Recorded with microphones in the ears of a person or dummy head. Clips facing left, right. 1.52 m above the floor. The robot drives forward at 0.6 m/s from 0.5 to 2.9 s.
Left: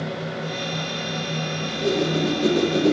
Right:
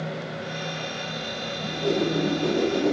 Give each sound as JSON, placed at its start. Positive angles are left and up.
{"t": 1.6, "sound": "a whoosh", "side_deg": 25, "distance_m": 3.0}